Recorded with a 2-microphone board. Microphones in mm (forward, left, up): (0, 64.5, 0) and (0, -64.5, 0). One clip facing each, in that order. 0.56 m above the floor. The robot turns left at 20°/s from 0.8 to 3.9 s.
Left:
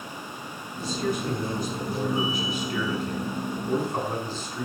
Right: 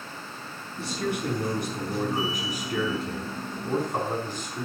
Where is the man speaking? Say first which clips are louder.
Left 1 dB; 100° right, 5 m; by 4.7 s 160° right, 5 m.